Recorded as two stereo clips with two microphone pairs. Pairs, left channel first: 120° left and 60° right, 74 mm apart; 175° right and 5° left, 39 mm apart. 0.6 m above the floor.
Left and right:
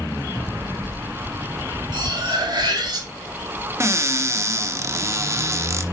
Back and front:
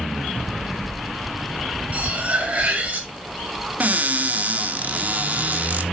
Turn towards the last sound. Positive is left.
turn(degrees=-25)